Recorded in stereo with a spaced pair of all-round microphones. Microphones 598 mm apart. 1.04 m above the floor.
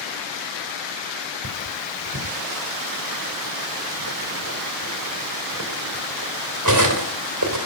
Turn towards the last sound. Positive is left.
turn(degrees=-30)  # may be behind; listen again after turning